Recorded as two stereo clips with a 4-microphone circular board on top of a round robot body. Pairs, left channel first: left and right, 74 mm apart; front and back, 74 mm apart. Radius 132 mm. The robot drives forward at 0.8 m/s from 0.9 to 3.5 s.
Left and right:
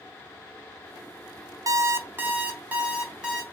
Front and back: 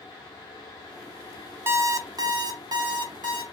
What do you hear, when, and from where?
1.7 s an alarm clock: 125° right, 0.6 m; by 3.4 s 165° right, 1.7 m